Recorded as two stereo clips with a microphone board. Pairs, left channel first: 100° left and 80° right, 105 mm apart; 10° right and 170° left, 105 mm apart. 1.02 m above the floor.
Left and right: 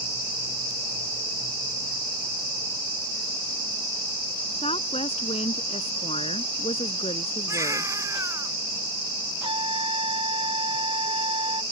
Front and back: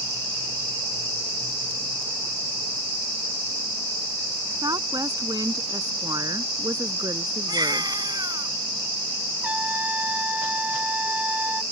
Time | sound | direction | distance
4.6 | a woman speaking | 115° left | ?
7.5 | a baby crying | 140° right | ?
9.4 | a trumpet | 115° right | ?